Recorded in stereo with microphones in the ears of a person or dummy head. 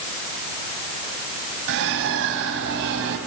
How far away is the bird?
About 3 m.